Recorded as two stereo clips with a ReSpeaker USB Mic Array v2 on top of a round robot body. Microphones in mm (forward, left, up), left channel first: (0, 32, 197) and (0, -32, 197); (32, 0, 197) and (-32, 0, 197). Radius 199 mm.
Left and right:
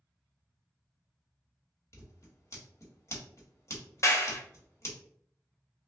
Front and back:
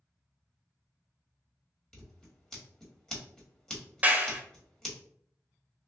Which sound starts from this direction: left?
Scissors, at 1.9 s.